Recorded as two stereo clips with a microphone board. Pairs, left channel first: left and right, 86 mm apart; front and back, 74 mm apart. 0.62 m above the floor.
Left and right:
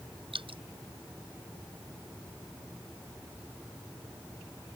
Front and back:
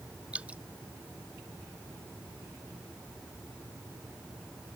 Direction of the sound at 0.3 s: 105° right.